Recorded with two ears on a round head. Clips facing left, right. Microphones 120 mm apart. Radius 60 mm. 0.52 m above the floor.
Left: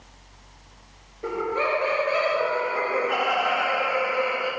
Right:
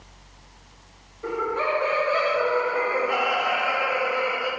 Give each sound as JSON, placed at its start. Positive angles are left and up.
{"t": 1.2, "sound": "laughter", "side_deg": 25, "distance_m": 1.8}